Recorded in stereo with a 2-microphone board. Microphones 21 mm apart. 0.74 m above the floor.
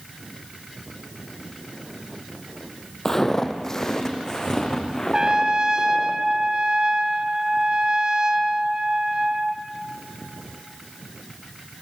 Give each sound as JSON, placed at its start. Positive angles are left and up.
{"t": 3.0, "sound": "footsteps", "side_deg": 15, "distance_m": 1.7}
{"t": 5.1, "sound": "a trumpet", "side_deg": -35, "distance_m": 1.6}